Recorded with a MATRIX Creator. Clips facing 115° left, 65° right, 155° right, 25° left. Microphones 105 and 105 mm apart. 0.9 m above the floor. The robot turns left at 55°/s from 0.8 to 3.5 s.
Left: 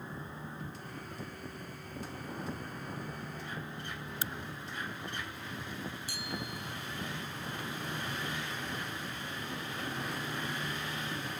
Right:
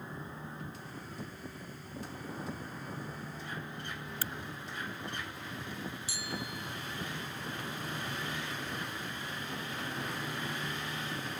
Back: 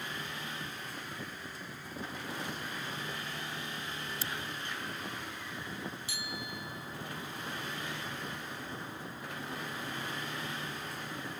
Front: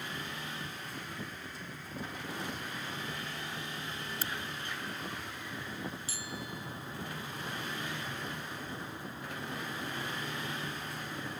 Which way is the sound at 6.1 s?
75° left.